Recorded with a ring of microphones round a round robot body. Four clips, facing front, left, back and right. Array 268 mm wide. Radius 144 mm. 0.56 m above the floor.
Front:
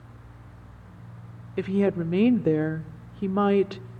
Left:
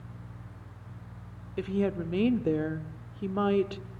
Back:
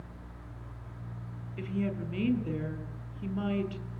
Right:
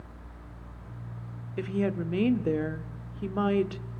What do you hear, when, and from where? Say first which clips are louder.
1.6 s a woman speaking: even, front 10 dB; 5° left, 1.3 m